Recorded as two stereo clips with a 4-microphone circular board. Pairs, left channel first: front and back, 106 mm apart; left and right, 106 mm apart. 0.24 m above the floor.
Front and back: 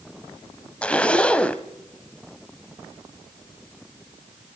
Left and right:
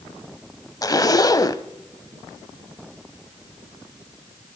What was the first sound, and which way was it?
A zipper, 70° left.